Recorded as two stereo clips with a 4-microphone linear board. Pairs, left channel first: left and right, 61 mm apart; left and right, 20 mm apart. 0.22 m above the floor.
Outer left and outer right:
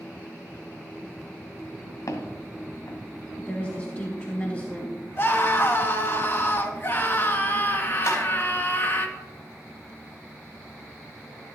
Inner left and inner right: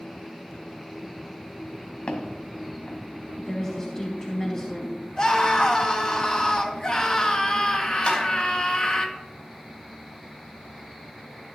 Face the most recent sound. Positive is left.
turn(degrees=70)  # may be behind; listen again after turning